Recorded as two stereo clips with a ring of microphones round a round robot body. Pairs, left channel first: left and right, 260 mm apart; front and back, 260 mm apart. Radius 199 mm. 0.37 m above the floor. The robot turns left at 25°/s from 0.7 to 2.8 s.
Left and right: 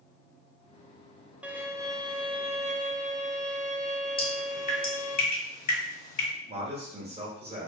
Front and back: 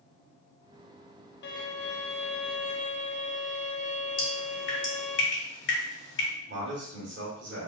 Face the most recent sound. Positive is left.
turn(degrees=-150)